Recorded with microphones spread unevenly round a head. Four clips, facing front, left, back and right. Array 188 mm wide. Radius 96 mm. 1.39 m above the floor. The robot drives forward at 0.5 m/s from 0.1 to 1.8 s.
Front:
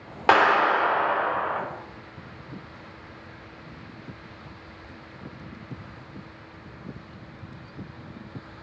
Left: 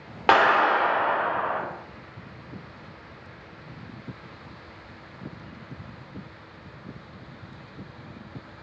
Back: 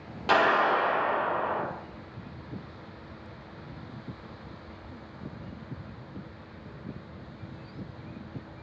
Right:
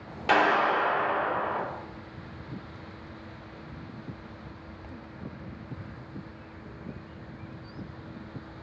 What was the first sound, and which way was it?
A clap, 50° left.